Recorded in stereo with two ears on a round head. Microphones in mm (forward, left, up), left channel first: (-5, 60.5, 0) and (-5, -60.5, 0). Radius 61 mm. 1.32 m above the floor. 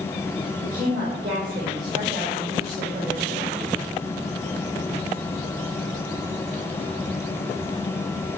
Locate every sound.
0.6 s a woman speaking: 25° right (ahead or behind), 5.5 m; by 3.5 s 45° right (ahead or behind), 5 m